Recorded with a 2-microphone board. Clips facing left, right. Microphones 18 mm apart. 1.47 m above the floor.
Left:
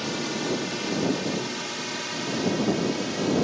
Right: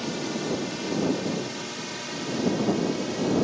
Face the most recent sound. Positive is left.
turn(degrees=15)  # may be behind; listen again after turning